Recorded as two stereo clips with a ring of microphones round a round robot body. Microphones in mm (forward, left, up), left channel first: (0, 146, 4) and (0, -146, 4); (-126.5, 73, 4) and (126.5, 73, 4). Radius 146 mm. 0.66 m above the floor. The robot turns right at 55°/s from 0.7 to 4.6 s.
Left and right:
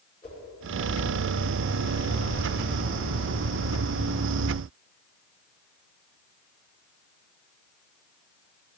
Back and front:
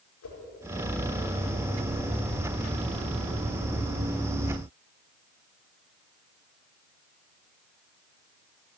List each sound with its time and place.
0.2 s a whoosh: 155° left, 5.5 m